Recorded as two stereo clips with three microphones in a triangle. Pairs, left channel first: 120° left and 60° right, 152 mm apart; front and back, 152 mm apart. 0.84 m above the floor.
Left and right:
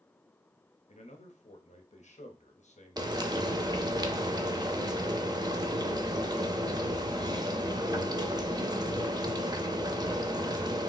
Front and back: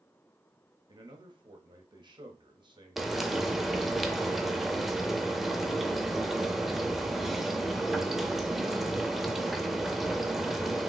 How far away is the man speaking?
About 1.0 m.